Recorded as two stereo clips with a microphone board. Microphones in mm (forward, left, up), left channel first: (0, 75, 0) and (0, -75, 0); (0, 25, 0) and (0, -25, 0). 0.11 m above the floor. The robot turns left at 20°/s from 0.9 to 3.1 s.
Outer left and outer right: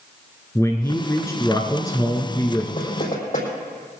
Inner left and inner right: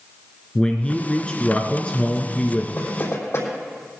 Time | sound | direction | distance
0.6 | a man speaking | 20° left (ahead or behind) | 1.1 m
2.8 | knocking | 55° left (ahead or behind) | 3.5 m